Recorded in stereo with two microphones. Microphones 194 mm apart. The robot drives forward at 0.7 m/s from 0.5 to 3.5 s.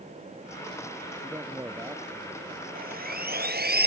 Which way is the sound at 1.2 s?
15° right (ahead or behind).